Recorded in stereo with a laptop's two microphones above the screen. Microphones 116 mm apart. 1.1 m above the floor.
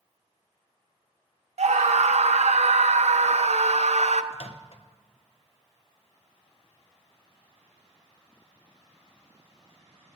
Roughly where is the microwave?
Left.